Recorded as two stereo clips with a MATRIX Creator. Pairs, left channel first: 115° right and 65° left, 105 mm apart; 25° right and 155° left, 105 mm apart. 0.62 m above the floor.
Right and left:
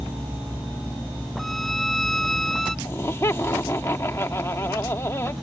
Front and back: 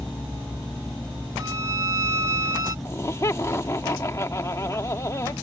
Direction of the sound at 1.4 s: 160° left.